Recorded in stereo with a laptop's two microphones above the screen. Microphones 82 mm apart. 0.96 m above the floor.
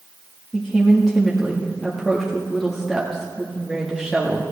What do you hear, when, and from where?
0.5 s a woman speaking: centre (ahead or behind), 1.7 m